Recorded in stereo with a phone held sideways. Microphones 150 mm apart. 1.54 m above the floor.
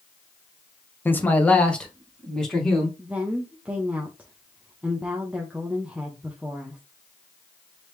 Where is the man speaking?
15° left (ahead or behind), 0.8 m; by 2.9 s centre (ahead or behind), 2.0 m.